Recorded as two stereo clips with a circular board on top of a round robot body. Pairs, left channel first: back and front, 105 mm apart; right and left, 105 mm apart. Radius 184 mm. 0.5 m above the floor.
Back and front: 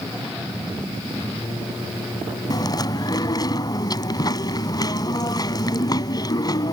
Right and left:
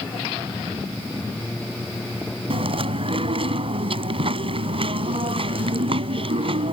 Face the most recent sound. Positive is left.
turn(degrees=125)